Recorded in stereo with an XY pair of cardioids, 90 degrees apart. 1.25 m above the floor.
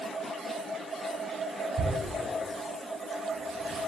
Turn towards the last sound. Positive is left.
turn(degrees=-60)